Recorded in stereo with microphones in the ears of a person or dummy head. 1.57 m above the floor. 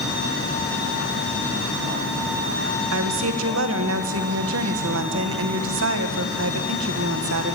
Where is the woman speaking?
80° right, 1.8 m.